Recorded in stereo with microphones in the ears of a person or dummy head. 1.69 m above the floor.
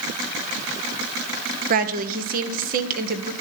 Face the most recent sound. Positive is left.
turn(degrees=-50)  # may be behind; listen again after turning